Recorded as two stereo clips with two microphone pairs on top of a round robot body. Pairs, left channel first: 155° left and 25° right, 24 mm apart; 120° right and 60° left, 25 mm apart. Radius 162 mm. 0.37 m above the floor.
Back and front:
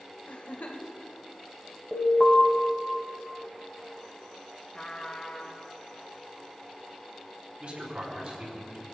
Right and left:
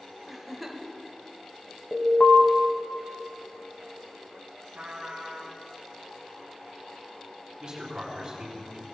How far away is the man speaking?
About 4 m.